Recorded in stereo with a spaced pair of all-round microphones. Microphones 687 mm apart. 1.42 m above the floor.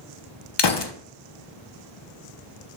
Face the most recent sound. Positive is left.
turn(degrees=40)  # may be behind; listen again after turning